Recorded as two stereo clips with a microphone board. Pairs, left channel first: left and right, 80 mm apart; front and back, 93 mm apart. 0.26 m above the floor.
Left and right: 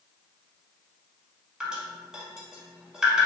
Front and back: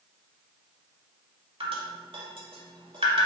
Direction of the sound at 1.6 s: 170° right.